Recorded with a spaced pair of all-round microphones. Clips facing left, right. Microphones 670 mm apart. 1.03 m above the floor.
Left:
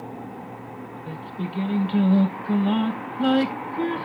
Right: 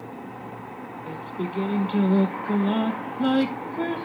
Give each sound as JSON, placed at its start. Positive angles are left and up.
{"t": 1.1, "sound": "singing", "side_deg": 30, "distance_m": 1.1}